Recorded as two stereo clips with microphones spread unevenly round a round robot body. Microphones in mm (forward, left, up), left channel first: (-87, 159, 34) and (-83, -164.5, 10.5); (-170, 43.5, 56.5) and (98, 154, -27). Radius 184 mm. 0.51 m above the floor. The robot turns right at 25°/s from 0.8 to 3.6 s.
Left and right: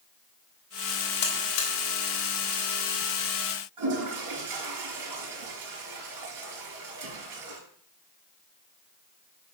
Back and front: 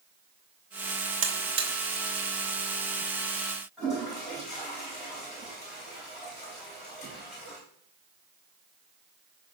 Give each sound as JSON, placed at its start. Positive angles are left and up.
{"t": 1.2, "sound": "a buzzer", "azimuth_deg": 30, "distance_m": 2.0}
{"t": 3.8, "sound": "a toilet flushing", "azimuth_deg": -60, "distance_m": 4.0}